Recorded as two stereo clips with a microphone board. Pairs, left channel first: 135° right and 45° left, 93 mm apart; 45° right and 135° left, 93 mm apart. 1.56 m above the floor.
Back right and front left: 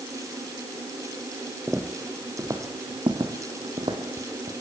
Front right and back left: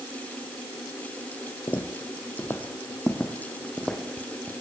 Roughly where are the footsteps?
Ahead right.